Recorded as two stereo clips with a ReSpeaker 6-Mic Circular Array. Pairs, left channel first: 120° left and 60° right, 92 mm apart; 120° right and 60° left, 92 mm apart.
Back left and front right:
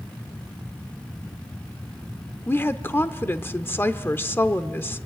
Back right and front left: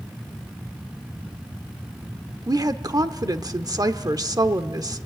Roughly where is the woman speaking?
Left.